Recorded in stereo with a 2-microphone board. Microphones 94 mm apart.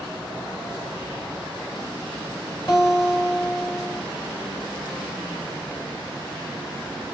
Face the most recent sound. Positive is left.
turn(degrees=50)  # may be behind; listen again after turning